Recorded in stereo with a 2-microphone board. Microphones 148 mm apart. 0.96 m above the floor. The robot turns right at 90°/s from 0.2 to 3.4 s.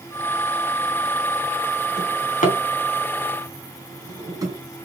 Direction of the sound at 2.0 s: 75° left (ahead or behind).